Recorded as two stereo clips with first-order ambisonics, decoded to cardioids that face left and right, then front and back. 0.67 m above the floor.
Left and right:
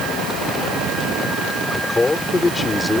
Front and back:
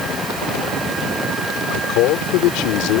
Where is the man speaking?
10° left.